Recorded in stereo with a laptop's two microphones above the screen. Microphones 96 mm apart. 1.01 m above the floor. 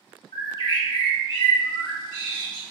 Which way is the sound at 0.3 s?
50° left (ahead or behind).